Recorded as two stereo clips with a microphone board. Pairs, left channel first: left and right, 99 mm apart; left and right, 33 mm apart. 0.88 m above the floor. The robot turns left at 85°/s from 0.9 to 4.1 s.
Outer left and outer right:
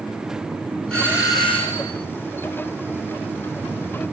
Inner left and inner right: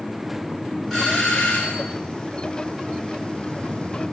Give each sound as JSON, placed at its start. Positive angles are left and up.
{"t": 0.9, "sound": "a doorbell", "azimuth_deg": 175, "distance_m": 5.5}